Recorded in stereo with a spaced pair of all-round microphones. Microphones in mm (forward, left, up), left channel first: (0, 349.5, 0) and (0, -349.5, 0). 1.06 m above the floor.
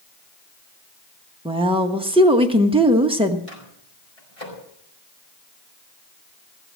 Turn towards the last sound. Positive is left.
turn(degrees=50)  # may be behind; listen again after turning